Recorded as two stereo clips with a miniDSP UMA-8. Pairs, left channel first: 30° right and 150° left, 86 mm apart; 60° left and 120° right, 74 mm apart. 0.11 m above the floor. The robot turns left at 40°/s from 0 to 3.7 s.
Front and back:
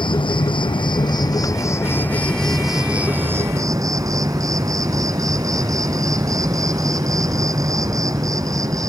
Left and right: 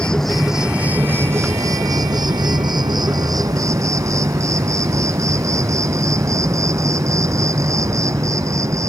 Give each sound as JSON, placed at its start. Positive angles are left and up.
{"t": 0.0, "sound": "an insect", "azimuth_deg": -15}